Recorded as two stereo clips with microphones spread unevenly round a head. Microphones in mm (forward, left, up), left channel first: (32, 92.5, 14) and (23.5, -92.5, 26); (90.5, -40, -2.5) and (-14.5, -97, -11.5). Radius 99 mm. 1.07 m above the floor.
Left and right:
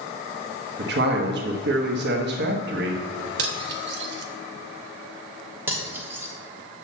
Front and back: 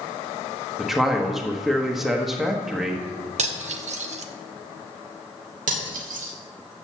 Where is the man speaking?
65° right, 1.3 m.